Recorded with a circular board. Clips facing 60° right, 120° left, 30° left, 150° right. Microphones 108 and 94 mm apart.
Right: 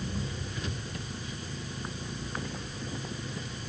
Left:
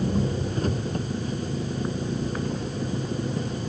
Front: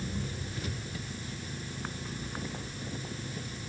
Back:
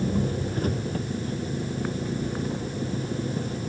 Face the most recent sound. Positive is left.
turn(degrees=170)